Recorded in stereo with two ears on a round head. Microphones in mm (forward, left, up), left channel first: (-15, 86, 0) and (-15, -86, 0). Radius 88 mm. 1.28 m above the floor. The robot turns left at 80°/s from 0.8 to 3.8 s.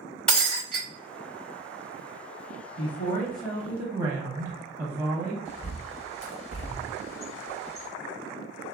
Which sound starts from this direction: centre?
Breaking glass, at 0.3 s.